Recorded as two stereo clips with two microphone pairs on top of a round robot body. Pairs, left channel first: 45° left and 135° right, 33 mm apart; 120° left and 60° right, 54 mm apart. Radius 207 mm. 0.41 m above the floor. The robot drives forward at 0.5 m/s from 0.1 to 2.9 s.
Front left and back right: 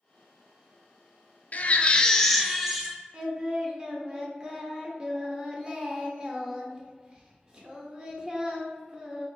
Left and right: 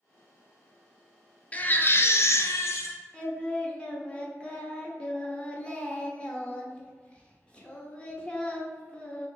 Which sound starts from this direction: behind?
Singing, at 3.1 s.